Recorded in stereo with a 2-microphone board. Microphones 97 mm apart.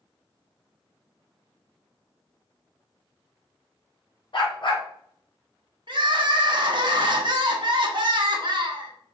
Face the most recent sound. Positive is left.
turn(degrees=-55)  # may be behind; listen again after turning